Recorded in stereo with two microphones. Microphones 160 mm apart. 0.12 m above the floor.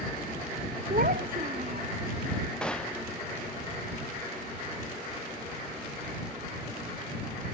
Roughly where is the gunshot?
Centre.